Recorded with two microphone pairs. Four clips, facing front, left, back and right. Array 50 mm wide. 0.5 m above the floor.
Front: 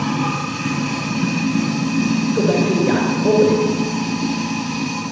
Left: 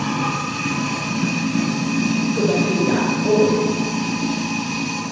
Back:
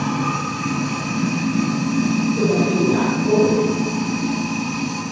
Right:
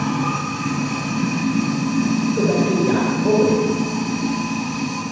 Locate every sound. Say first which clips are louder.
0.0 s running water: even, front 1 dB; 55° left, 9 m
2.3 s a man speaking: even, front 2 dB; 10° right, 9 m